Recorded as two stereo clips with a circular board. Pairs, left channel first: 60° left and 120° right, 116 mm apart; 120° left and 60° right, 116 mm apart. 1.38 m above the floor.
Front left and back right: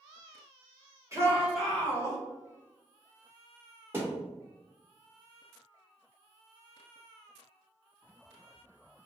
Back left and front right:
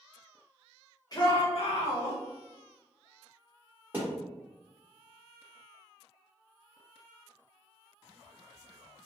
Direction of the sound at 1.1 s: 175° left.